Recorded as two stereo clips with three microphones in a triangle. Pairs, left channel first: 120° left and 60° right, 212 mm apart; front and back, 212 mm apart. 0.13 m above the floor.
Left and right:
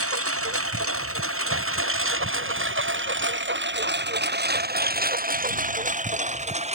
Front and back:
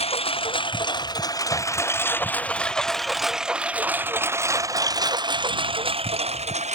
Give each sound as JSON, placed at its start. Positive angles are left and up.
{"t": 0.0, "sound": "a lawn mower", "azimuth_deg": -65}